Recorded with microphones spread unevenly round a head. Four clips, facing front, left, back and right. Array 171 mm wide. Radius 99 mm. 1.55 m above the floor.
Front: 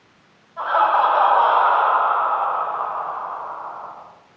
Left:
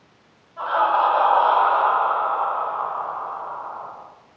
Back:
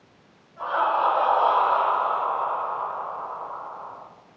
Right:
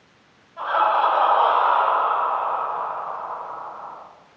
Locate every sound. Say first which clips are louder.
0.6 s laughter: even, front 6 dB; 10° right, 7 m; by 3.9 s 30° left, 3.5 m